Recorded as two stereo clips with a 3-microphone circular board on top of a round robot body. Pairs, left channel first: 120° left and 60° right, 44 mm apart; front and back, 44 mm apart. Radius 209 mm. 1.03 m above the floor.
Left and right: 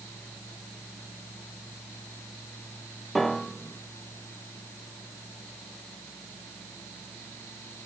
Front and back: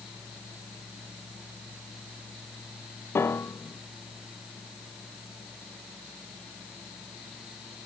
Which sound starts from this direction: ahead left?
A piano, at 3.1 s.